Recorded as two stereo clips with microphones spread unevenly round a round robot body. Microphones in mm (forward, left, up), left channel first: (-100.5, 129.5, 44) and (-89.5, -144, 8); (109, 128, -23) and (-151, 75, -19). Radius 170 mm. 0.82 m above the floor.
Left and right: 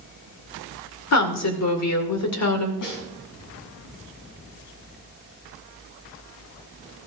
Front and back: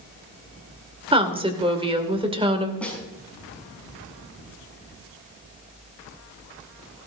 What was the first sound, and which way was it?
A woman speaking, 120° left.